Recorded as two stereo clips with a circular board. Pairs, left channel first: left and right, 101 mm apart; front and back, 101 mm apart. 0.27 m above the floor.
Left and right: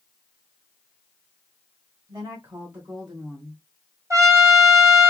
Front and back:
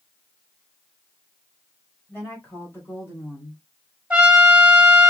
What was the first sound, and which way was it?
A woman speaking, 65° right.